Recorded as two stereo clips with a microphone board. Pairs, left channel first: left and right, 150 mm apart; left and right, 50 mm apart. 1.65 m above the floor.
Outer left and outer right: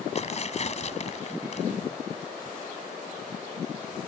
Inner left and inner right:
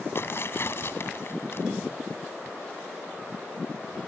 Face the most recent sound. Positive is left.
turn(degrees=50)  # may be behind; listen again after turning